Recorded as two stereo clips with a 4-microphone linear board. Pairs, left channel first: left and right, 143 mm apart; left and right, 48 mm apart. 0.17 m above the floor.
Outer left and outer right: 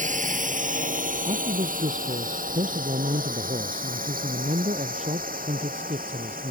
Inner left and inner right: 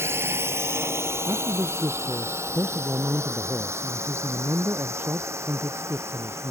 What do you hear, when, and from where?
0.0 s a drone: 60° right (ahead or behind); by 6.5 s 80° right
1.2 s a man speaking: 55° right (ahead or behind)